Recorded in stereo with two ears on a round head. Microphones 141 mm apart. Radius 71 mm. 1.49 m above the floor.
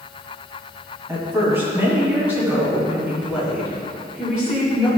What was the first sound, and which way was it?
A woman speaking, 20° right (ahead or behind).